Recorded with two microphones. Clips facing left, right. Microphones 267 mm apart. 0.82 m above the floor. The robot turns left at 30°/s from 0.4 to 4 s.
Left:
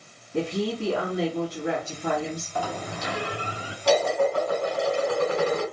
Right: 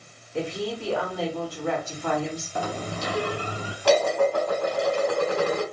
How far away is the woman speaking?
About 1.9 m.